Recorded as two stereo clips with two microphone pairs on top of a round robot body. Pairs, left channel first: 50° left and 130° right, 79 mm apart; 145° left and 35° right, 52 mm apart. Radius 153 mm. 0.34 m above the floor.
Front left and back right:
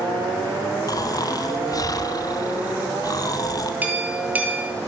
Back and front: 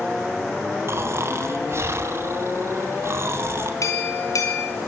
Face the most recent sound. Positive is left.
turn(degrees=160)